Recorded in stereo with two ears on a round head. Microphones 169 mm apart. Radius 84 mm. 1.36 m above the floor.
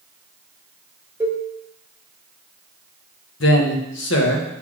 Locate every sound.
1.2 s a cowbell: 15° right (ahead or behind), 1.0 m
3.4 s a man speaking: 70° left (ahead or behind), 1.3 m